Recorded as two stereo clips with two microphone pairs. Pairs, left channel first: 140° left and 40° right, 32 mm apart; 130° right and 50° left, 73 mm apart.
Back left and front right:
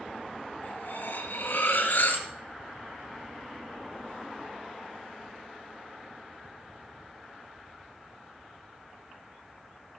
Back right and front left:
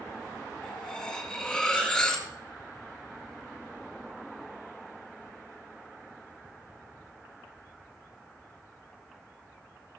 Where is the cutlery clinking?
150° left, 2.5 m.